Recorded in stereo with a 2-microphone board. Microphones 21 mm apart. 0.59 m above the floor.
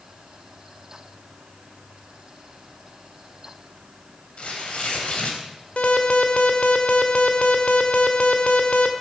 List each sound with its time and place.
4.4 s tearing paper: 55° left (ahead or behind), 3.5 m
5.8 s an alarm: 60° left (ahead or behind), 1.6 m